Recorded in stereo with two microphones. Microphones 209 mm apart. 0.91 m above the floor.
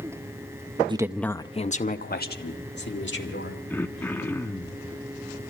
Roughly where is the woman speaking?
Right.